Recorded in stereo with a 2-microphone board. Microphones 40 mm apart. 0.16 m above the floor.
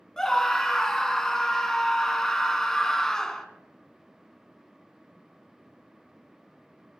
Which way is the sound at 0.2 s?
10° left (ahead or behind).